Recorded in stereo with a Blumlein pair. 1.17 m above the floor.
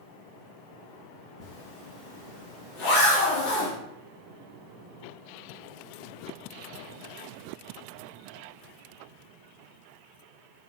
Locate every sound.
1.4 s a zipper: 40° left, 0.8 m